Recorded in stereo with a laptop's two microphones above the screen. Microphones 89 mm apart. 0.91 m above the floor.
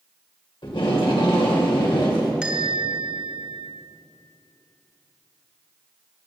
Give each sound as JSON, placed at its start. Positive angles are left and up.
{"t": 0.6, "sound": "tape being pulled", "side_deg": 75, "distance_m": 3.0}
{"t": 2.4, "sound": "a bell", "side_deg": -10, "distance_m": 1.0}